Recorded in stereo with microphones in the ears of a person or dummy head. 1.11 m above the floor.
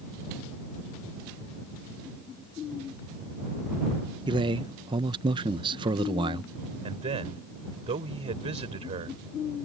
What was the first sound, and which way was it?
A man speaking, 25° right (ahead or behind).